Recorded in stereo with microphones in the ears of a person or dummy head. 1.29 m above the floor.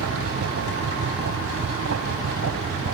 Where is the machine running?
80° right.